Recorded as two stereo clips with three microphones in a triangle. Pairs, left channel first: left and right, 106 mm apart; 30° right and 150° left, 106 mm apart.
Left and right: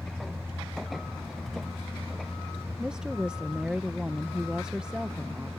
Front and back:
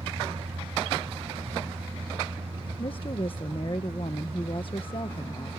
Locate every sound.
0.0 s a vehicle: straight behind
2.8 s a woman speaking: 10° right